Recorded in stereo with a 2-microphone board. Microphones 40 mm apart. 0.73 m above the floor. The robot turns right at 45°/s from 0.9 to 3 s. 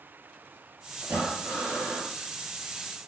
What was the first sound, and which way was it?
Breathing, 125° right.